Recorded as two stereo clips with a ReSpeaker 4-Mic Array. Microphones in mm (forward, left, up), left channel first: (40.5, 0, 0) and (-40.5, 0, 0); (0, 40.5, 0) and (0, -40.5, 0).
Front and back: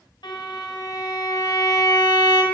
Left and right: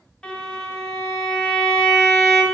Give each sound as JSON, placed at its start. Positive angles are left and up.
{"t": 0.2, "sound": "a violin", "azimuth_deg": 15, "distance_m": 3.0}